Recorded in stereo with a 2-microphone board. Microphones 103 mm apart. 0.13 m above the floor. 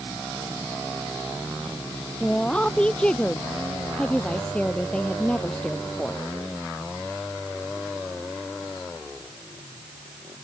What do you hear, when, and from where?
2.2 s a woman speaking: 10° left (ahead or behind)